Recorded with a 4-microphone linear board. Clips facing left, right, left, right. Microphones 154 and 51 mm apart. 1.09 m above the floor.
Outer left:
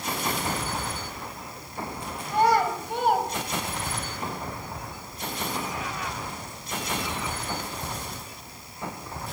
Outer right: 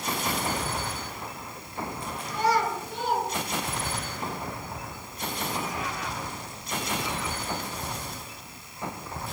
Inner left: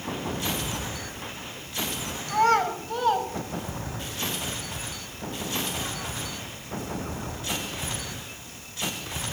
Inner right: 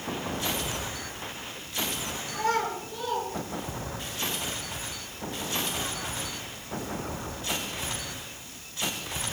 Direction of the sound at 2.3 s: 60° left (ahead or behind).